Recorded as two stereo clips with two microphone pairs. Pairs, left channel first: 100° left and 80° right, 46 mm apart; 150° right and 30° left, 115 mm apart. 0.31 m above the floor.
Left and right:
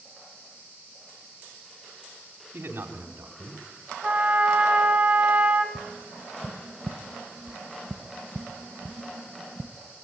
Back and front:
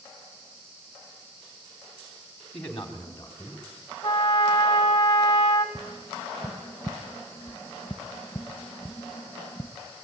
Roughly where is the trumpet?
Behind right.